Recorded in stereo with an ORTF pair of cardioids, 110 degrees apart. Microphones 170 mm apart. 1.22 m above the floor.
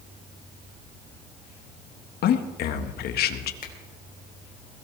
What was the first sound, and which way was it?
A man speaking, 70° left.